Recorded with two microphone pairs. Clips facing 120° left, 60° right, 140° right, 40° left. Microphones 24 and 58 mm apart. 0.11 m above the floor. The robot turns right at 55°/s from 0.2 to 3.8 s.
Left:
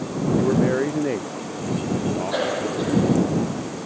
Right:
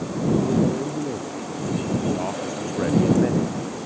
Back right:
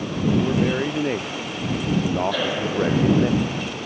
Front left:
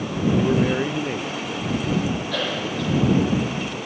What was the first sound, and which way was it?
A man speaking, 110° left.